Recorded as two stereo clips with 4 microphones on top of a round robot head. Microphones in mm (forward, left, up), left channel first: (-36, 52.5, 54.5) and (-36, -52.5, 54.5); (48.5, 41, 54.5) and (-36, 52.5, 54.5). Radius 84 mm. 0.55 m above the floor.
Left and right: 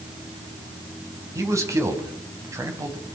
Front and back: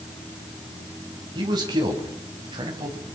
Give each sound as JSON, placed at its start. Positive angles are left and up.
{"t": 1.4, "sound": "a man speaking", "azimuth_deg": -150, "distance_m": 5.0}